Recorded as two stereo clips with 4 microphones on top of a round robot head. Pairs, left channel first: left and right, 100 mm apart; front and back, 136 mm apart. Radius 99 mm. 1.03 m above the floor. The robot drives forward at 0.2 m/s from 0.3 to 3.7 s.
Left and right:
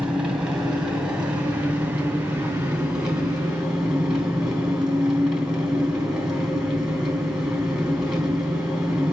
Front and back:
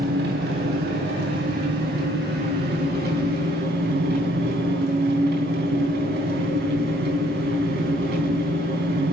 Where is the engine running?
170° right, 3 m.